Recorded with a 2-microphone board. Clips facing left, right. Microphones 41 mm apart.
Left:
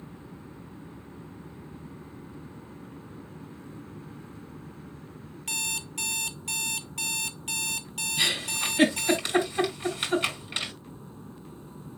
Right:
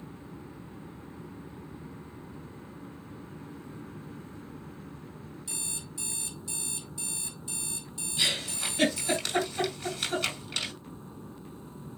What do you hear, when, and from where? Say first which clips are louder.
5.5 s an alarm clock: left 12 dB; 65° left (ahead or behind), 0.8 m
8.2 s a giggle: left 2 dB; 20° left (ahead or behind), 6 m